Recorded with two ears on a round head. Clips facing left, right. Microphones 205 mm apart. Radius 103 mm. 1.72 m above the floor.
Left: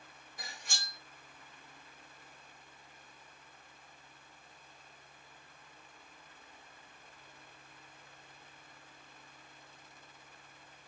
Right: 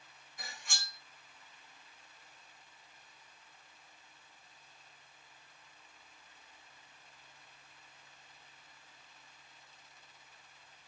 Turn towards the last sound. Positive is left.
turn(degrees=35)  # may be behind; listen again after turning